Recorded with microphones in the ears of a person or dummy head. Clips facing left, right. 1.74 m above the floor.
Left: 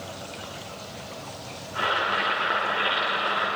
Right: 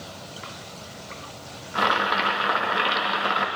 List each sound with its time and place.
1.8 s boiling: 65° right (ahead or behind), 2 m